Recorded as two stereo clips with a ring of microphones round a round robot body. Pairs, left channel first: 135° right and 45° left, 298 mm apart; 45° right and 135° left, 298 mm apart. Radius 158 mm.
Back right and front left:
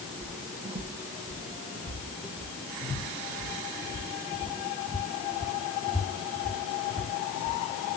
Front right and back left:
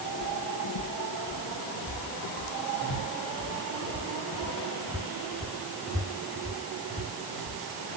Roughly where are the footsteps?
Ahead.